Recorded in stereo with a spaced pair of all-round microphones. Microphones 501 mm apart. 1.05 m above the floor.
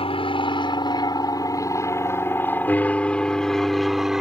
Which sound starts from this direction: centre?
An aircraft, at 0.0 s.